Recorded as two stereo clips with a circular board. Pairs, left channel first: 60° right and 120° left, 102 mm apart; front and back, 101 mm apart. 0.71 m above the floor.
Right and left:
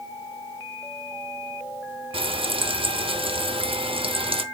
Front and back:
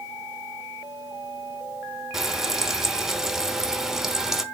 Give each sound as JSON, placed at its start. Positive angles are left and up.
{"t": 2.1, "sound": "frying", "azimuth_deg": 95, "distance_m": 0.8}